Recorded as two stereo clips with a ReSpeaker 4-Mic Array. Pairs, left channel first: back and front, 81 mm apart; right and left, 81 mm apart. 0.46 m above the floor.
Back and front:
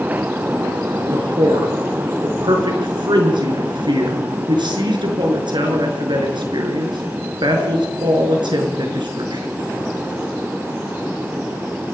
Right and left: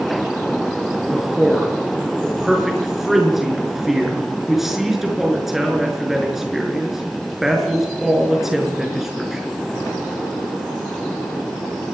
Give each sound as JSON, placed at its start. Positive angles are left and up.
{"t": 1.1, "sound": "a man speaking", "azimuth_deg": 5, "distance_m": 6.0}